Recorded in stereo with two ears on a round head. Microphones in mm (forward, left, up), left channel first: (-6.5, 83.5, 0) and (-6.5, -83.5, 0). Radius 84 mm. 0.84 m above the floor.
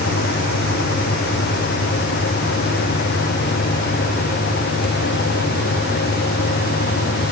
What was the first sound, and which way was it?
Only background noise.